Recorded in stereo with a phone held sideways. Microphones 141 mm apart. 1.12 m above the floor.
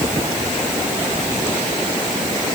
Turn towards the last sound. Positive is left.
No sound to turn to.